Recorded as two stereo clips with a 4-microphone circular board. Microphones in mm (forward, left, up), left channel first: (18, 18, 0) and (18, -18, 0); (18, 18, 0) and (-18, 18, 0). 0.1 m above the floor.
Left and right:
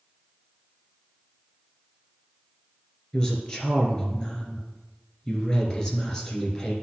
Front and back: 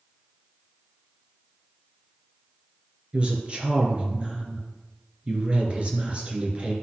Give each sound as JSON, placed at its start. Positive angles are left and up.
{"t": 3.1, "sound": "a woman speaking", "azimuth_deg": 145, "distance_m": 2.0}